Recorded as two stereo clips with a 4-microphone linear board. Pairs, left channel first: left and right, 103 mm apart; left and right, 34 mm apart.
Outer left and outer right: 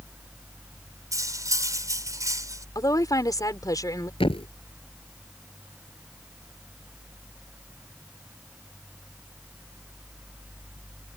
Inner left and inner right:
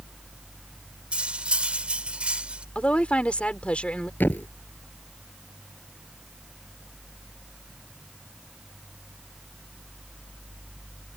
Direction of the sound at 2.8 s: 35° left (ahead or behind).